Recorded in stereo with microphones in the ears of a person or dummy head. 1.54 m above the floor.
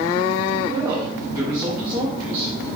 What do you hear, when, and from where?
0.7 s a woman speaking: 20° right (ahead or behind), 2.5 m